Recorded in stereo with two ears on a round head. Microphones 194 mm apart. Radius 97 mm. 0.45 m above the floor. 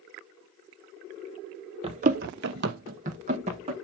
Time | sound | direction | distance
1.8 | running footsteps | 30° right (ahead or behind) | 0.8 m